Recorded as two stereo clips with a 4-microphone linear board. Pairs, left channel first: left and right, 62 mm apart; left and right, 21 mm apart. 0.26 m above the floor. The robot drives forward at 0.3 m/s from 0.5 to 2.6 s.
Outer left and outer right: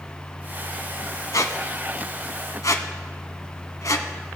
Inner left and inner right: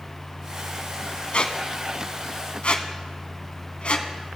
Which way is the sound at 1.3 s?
65° left (ahead or behind).